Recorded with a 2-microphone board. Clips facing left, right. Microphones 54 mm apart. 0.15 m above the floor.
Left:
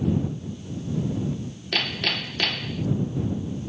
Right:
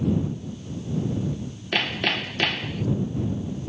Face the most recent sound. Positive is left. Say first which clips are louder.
# right 2 dB
turn(degrees=-15)  # may be behind; listen again after turning